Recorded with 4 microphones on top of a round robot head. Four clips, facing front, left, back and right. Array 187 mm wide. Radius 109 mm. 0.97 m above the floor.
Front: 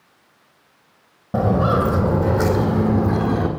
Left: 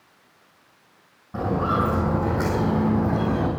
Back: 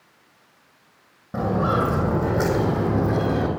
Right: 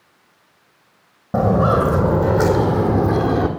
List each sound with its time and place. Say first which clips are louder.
1.3 s footsteps: right 7 dB, front 4 dB; 65° right, 2 m; by 3.5 s 100° right, 2 m